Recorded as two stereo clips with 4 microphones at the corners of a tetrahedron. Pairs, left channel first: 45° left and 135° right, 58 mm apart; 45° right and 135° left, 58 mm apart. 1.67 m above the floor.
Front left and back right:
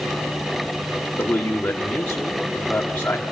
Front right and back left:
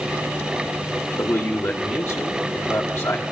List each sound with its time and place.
1.2 s a man speaking: 10° right, 1.8 m